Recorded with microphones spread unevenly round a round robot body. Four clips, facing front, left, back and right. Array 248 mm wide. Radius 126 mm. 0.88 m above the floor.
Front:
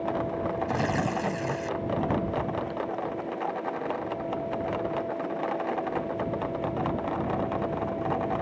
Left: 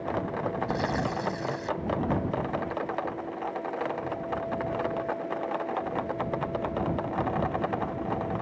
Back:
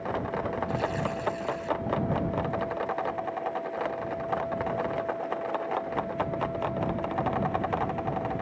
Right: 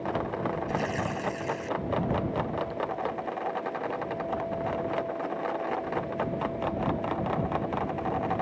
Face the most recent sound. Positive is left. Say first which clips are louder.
# left 1 dB, front 2 dB
turn(degrees=20)